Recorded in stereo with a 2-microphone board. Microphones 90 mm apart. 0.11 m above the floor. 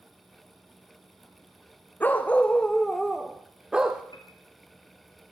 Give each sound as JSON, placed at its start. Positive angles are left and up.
{"t": 2.0, "sound": "a dog barking", "side_deg": 20, "distance_m": 1.7}
{"t": 4.1, "sound": "a piano", "side_deg": 55, "distance_m": 4.0}